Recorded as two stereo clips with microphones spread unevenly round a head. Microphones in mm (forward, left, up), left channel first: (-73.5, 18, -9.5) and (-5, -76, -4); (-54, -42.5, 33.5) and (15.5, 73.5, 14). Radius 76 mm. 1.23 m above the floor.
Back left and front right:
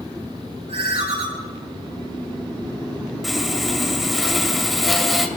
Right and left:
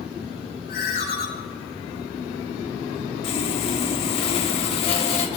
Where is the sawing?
140° right, 1.4 m.